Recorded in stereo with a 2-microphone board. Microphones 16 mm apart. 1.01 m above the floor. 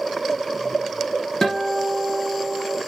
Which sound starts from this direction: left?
A guitar, at 1.4 s.